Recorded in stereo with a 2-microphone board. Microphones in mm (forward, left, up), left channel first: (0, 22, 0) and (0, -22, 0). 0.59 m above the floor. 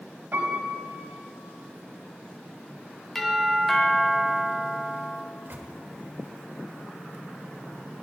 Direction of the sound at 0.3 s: 65° right (ahead or behind).